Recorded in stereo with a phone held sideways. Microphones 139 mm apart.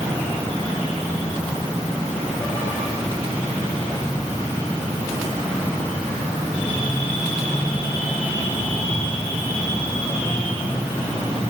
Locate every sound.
Only background noise.